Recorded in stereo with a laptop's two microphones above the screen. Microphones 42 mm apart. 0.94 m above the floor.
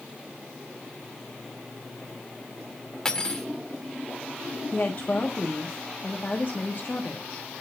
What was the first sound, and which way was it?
Cutlery clinking, 15° left (ahead or behind).